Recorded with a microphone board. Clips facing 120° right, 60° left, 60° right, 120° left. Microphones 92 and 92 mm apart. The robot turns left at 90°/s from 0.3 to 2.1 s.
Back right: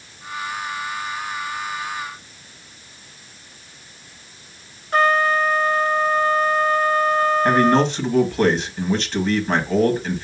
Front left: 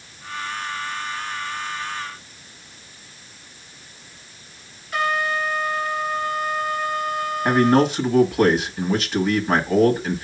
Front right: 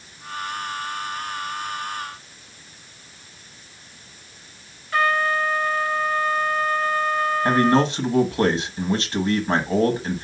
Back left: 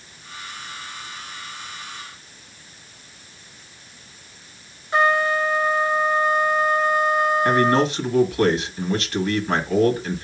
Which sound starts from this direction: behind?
A trumpet, at 4.9 s.